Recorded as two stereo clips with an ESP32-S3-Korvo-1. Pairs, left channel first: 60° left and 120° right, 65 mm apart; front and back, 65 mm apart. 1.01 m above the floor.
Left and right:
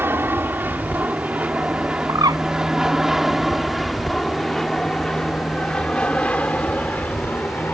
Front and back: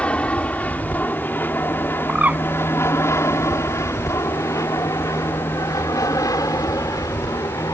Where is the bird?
115° right.